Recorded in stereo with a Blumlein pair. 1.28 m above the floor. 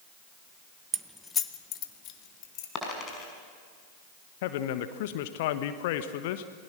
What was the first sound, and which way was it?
Keys jangling, 20° right.